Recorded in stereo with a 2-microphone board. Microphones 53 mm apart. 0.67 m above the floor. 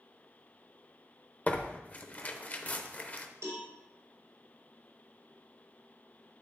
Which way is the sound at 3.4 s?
75° right (ahead or behind).